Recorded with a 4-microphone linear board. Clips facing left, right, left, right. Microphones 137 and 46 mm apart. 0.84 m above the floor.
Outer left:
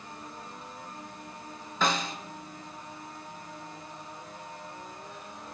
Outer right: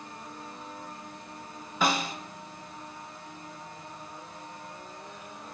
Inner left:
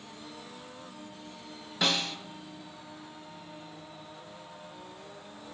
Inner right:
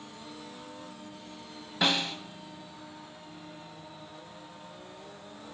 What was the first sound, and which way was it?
A snare drum, 10° right (ahead or behind).